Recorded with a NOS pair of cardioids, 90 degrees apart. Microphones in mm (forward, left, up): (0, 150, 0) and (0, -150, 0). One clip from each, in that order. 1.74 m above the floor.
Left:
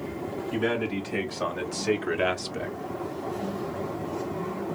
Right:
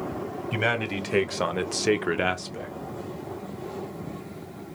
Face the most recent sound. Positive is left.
turn(degrees=30)